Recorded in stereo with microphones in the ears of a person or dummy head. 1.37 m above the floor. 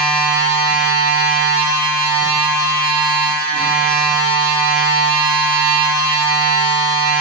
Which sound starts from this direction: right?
A machine running, at 0.0 s.